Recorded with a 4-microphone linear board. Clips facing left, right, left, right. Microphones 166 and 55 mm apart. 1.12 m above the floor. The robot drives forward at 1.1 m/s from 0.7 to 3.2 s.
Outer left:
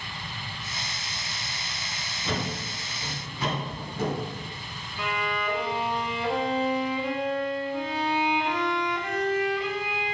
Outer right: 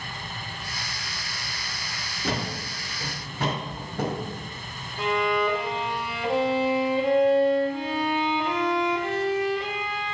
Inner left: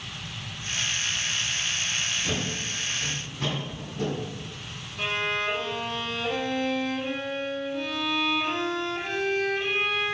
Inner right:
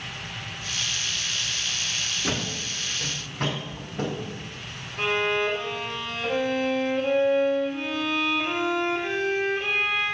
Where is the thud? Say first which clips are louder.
Outer right 1 dB, inner right 1 dB; 80° right, 5 m; by 4.3 s 70° right (ahead or behind), 5 m.